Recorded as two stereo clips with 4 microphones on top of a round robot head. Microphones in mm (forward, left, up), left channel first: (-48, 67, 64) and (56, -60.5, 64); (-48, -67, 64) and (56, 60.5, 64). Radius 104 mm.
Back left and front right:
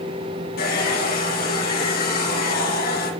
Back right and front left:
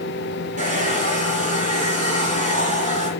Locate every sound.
0.6 s a hair dryer: 95° left, 6 m